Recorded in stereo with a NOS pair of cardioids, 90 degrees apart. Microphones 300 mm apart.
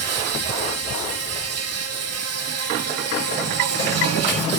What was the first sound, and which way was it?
An insect, 60° right.